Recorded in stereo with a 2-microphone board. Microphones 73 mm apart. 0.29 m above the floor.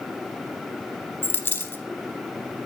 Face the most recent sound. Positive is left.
turn(degrees=35)  # may be behind; listen again after turning